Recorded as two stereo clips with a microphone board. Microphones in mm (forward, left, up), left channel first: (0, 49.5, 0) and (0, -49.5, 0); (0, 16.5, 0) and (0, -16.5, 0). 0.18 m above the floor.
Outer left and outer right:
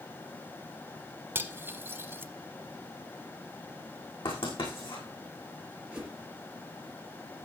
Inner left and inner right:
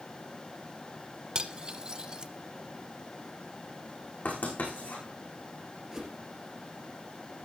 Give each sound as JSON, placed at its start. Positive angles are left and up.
{"t": 1.4, "sound": "cutlery clinking", "side_deg": -25, "distance_m": 0.9}
{"t": 4.2, "sound": "writing", "side_deg": 70, "distance_m": 6.0}
{"t": 5.9, "sound": "a whoosh", "side_deg": -10, "distance_m": 3.5}